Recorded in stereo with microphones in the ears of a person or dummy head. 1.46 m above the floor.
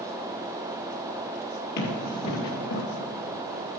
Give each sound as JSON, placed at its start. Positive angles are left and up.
{"t": 1.8, "sound": "running footsteps", "side_deg": 40, "distance_m": 2.0}